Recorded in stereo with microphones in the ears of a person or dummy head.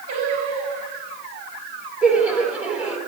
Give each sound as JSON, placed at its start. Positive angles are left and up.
{"t": 0.1, "sound": "singing", "side_deg": -55, "distance_m": 5.0}
{"t": 2.0, "sound": "laughter", "side_deg": -10, "distance_m": 4.5}